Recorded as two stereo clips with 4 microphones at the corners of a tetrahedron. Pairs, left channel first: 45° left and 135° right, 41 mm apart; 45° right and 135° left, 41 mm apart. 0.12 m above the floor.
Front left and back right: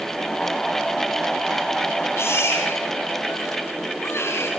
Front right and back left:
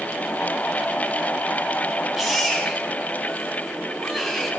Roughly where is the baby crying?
Ahead left.